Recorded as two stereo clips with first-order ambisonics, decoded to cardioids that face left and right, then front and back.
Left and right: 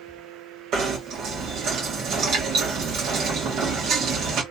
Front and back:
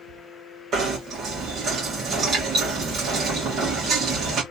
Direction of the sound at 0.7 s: 125° right.